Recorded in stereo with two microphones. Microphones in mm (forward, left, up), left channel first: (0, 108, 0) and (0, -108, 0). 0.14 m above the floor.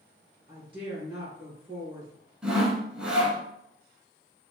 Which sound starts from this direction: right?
A woman speaking, at 0.5 s.